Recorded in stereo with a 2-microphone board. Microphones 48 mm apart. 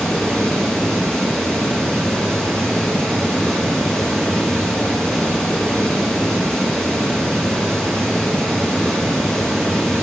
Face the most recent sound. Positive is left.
turn(degrees=15)  # may be behind; listen again after turning